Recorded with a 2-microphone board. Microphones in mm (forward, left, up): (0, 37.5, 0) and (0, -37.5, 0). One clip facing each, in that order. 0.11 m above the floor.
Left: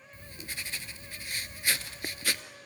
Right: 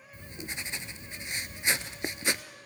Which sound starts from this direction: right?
Writing, at 0.1 s.